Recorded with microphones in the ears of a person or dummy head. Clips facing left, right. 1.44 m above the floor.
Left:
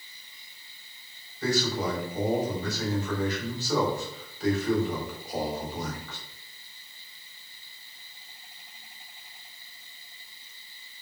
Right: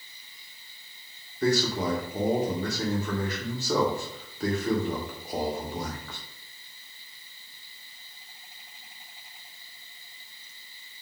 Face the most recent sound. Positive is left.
turn(degrees=-45)  # may be behind; listen again after turning